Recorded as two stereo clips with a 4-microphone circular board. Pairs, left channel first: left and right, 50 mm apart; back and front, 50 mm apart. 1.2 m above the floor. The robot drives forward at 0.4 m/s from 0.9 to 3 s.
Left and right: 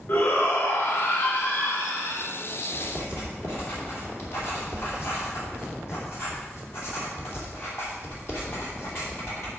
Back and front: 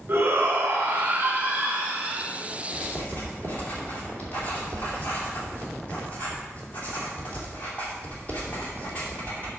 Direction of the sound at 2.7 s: 120° left.